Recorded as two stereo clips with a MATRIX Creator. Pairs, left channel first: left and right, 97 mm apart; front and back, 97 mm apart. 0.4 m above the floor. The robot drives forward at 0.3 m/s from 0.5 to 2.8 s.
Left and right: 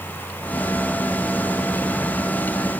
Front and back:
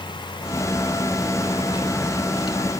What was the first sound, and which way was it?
Only background noise.